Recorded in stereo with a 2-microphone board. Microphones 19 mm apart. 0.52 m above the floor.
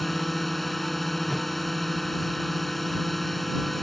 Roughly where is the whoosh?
Centre.